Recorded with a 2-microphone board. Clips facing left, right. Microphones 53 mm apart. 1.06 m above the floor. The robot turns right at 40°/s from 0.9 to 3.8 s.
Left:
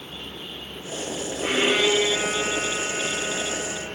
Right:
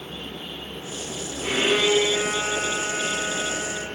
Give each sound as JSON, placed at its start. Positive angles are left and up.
{"t": 1.4, "sound": "a violin", "azimuth_deg": 145, "distance_m": 8.0}